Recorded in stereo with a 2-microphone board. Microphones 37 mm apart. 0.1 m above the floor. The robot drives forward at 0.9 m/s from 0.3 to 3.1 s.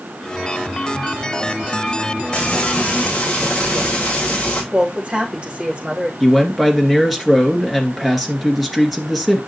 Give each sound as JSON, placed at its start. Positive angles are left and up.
{"t": 2.3, "sound": "frying", "side_deg": 30, "distance_m": 7.0}
{"t": 4.7, "sound": "a woman speaking", "side_deg": -30, "distance_m": 5.0}
{"t": 6.2, "sound": "a man speaking", "side_deg": -5, "distance_m": 1.9}